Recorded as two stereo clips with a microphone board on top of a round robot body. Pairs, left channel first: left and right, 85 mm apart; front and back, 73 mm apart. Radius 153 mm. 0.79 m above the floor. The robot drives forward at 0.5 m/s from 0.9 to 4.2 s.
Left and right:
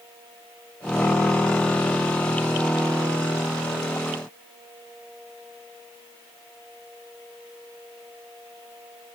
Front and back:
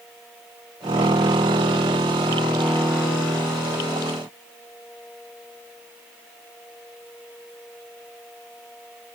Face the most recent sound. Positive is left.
No sound to turn to.